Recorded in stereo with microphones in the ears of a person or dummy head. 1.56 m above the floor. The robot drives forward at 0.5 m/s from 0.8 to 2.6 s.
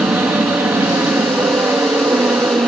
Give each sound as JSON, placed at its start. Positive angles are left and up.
{"t": 0.0, "sound": "an aircraft", "side_deg": -10}